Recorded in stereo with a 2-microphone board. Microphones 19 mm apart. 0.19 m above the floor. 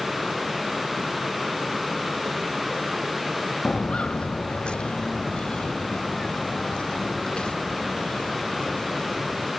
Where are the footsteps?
80° left; by 9.5 s 50° left (ahead or behind).